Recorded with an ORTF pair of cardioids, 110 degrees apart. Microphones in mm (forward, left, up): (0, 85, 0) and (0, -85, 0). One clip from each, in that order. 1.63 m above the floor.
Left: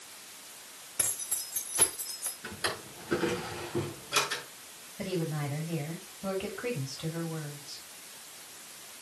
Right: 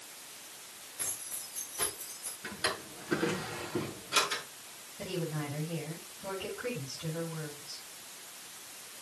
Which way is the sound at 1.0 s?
60° left.